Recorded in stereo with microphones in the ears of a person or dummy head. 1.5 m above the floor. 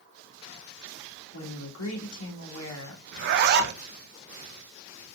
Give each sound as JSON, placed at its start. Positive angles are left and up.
{"t": 1.3, "sound": "a woman speaking", "side_deg": 85, "distance_m": 3.0}
{"t": 3.1, "sound": "a zipper", "side_deg": -55, "distance_m": 1.0}